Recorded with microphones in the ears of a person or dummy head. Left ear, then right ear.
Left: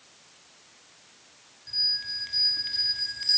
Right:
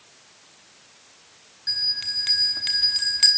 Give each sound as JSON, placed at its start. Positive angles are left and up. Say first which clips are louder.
{"t": 1.7, "sound": "a bell", "louder": "right 3 dB", "side_deg": -25, "distance_m": 1.3}